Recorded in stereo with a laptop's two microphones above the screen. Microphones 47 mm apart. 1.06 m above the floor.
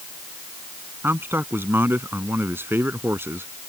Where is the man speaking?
55° right (ahead or behind); by 3.5 s 60° right (ahead or behind).